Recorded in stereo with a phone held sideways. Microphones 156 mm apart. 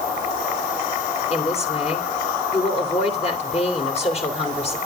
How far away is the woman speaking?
About 3 m.